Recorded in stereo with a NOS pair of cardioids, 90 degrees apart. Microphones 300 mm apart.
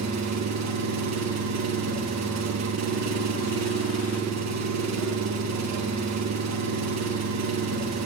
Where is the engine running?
60° right, 1.3 m.